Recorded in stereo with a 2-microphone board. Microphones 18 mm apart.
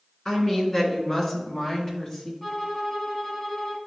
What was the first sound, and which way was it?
A woman speaking, 30° left (ahead or behind).